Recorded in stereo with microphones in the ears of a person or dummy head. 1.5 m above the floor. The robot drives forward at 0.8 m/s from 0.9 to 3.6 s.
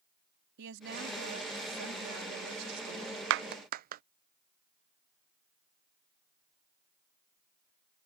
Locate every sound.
0.6 s a woman speaking: 70° right (ahead or behind); by 3.2 s 80° right
3.3 s a clap: 70° right (ahead or behind); by 4.0 s 50° right (ahead or behind)